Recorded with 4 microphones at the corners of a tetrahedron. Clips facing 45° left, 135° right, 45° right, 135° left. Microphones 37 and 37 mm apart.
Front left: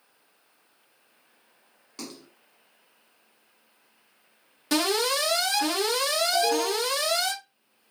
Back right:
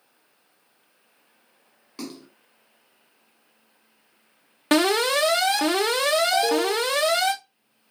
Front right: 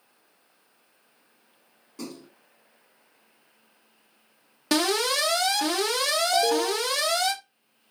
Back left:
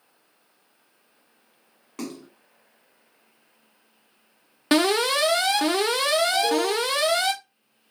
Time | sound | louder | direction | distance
2.0 | a splash | back right 4 dB, back left 4 dB | 150° left | 0.7 m
4.7 | an alarm | back right 5 dB, back left 4 dB | 165° right | 0.9 m
6.3 | an alarm | back right 3 dB, back left 1 dB | 70° right | 1.6 m